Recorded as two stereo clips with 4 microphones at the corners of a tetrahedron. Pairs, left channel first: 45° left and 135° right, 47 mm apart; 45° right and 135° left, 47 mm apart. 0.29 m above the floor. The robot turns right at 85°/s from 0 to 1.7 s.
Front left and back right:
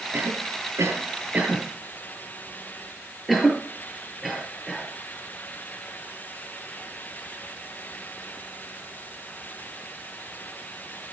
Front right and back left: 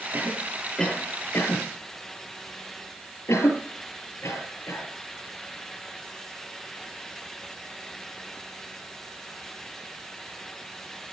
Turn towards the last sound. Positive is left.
turn(degrees=-45)